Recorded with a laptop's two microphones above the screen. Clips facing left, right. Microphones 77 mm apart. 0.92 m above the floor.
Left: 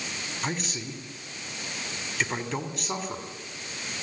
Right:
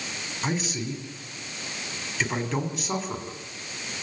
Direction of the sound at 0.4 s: Centre (ahead or behind).